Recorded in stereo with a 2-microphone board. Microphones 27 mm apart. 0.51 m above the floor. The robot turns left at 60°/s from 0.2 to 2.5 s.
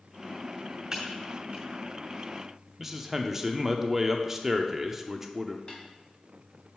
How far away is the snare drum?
About 1.8 m.